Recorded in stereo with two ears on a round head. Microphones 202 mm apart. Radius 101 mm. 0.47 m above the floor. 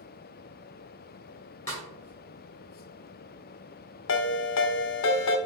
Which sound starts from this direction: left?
A ringtone, at 4.1 s.